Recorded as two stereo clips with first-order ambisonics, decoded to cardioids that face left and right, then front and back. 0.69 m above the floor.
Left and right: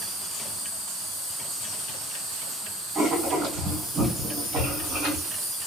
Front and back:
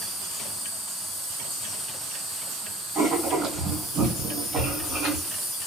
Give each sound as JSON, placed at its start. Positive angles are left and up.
{"t": 0.0, "sound": "an insect", "azimuth_deg": -95, "distance_m": 1.9}
{"t": 3.0, "sound": "writing", "azimuth_deg": -125, "distance_m": 1.8}